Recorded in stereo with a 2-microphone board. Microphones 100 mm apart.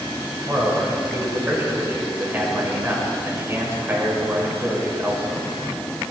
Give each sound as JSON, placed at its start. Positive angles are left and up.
{"t": 0.5, "sound": "a man speaking", "side_deg": -20, "distance_m": 5.0}